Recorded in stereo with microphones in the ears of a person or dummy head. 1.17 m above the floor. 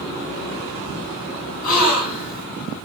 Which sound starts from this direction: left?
A gasp, at 1.6 s.